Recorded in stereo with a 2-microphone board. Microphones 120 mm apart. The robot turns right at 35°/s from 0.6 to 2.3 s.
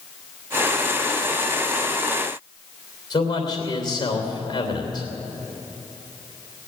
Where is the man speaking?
35° left (ahead or behind), 3 m.